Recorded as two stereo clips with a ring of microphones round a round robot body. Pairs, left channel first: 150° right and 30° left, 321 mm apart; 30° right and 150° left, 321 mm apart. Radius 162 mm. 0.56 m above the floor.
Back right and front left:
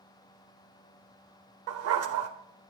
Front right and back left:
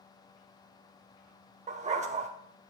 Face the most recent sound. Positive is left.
turn(degrees=80)